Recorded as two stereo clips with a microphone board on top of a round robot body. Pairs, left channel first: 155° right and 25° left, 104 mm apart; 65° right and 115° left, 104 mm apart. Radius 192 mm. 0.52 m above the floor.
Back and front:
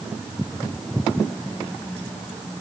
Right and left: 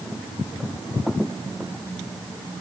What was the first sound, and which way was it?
Only background noise.